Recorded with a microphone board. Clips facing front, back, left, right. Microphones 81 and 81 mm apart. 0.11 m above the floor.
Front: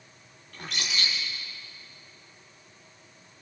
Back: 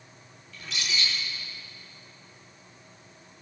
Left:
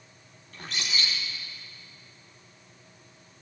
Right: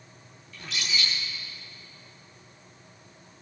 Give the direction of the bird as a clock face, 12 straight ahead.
11 o'clock.